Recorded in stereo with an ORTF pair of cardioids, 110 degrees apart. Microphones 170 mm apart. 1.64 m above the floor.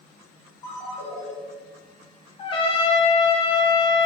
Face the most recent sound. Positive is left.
turn(degrees=35)